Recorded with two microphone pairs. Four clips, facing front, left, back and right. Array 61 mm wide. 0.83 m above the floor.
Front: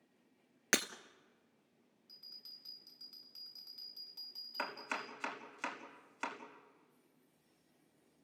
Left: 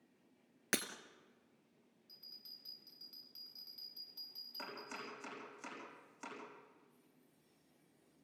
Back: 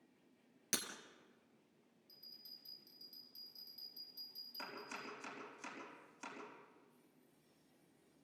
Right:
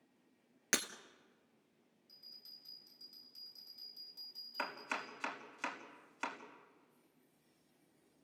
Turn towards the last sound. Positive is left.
turn(degrees=-40)